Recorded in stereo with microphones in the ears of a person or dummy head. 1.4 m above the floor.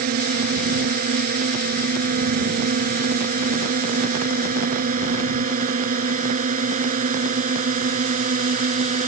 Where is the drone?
50° right (ahead or behind); by 9.1 s 40° right (ahead or behind).